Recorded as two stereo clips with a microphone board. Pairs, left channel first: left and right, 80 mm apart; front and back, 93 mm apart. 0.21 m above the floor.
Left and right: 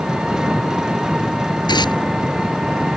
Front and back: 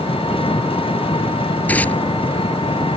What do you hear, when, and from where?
0.0 s an engine running: 10° right
1.7 s tearing paper: 75° left